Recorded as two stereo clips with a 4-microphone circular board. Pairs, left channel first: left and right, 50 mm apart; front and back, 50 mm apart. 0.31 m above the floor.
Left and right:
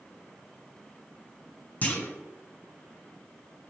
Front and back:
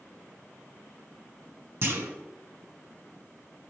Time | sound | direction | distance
1.8 | a clunk | 145° left | 1.3 m